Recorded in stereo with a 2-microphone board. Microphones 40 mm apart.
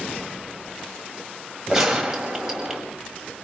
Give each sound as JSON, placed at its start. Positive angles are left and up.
{"t": 1.7, "sound": "a gunshot", "side_deg": -10, "distance_m": 6.5}